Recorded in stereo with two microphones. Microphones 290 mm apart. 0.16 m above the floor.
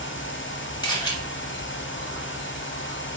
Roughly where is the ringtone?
I don't hear a ringtone.